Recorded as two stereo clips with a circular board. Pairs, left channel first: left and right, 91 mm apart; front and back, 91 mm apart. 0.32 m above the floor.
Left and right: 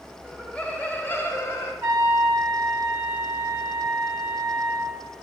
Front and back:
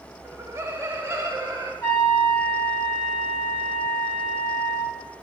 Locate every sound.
0.2 s laughter: 170° left, 1.3 m; by 1.7 s 130° left, 1.9 m
1.8 s a trumpet: 25° right, 1.9 m